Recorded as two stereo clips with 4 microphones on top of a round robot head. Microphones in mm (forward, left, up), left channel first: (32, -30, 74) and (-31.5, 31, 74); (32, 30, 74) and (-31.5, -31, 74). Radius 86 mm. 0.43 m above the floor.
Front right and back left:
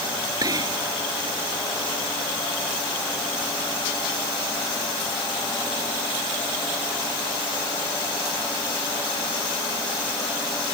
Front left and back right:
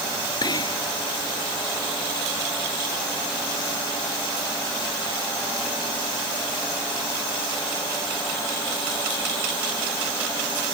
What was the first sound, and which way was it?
Whispering, 90° left.